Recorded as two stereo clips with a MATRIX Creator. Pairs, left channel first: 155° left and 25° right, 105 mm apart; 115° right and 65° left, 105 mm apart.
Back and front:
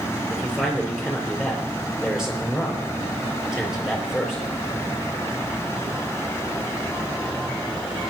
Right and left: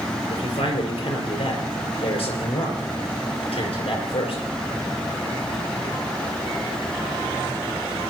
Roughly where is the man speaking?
Right.